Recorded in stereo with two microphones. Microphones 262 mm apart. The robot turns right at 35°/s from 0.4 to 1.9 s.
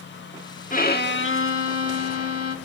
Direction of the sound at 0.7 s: 35° left.